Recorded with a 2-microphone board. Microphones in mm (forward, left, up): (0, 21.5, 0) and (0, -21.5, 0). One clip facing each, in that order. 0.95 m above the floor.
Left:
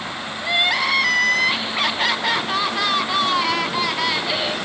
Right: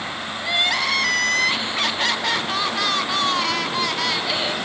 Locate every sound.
0.4 s crying: 10° left (ahead or behind), 0.8 m